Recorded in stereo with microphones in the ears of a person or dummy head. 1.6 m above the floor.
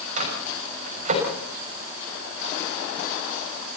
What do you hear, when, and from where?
0.2 s a microwave: 45° right (ahead or behind), 6.5 m